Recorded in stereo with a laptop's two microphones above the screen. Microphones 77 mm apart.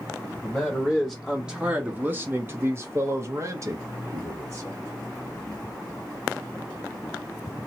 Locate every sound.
0.4 s a man speaking: 10° left (ahead or behind), 1.2 m; by 4.8 s 35° right (ahead or behind), 2 m